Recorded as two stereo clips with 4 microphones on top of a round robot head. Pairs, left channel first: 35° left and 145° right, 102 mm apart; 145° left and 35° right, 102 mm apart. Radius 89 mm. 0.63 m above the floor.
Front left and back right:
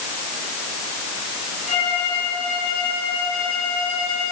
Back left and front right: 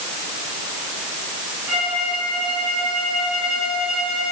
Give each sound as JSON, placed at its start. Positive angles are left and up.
{"t": 1.7, "sound": "a violin", "azimuth_deg": 45, "distance_m": 10.0}